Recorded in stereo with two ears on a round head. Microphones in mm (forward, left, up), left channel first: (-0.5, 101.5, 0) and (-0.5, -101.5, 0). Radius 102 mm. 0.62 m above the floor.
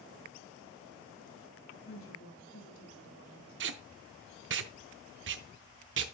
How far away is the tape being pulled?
About 0.7 m.